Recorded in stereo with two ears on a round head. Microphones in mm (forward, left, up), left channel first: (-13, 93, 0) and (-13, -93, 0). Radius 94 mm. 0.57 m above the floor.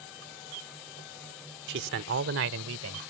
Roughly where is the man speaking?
Right.